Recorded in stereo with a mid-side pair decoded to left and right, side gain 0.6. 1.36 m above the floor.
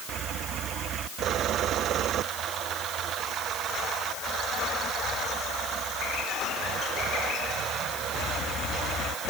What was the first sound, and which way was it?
Only background noise.